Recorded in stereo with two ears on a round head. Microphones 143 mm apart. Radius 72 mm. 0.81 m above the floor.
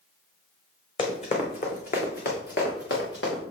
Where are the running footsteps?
35° left (ahead or behind), 2.5 m; by 3.4 s 80° left, 4 m.